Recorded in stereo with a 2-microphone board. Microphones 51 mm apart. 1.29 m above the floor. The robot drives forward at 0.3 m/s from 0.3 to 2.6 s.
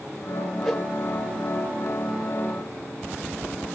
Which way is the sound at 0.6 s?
Centre (ahead or behind).